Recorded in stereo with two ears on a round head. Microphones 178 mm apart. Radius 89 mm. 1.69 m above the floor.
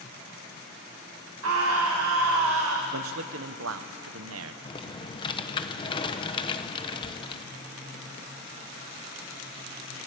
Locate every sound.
1.4 s a scream: 75° right (ahead or behind), 2.5 m
2.9 s a man speaking: 80° right, 1.2 m
4.7 s typing on a keyboard: 25° left (ahead or behind), 0.9 m